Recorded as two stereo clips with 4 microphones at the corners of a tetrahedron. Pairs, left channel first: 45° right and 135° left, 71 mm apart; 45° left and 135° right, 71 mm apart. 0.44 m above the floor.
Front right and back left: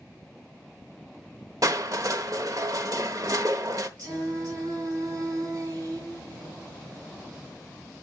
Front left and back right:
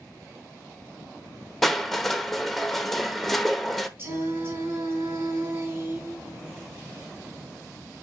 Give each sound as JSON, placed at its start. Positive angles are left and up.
{"t": 1.6, "sound": "crushing", "azimuth_deg": 130, "distance_m": 0.9}
{"t": 4.0, "sound": "singing", "azimuth_deg": 170, "distance_m": 3.5}